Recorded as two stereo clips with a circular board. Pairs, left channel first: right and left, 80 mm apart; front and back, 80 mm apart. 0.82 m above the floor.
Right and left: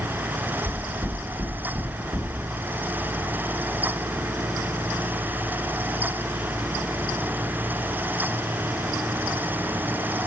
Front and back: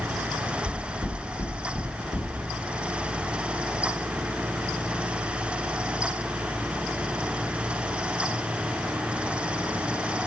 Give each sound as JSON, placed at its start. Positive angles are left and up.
{"t": 0.7, "sound": "knocking", "azimuth_deg": 40, "distance_m": 2.5}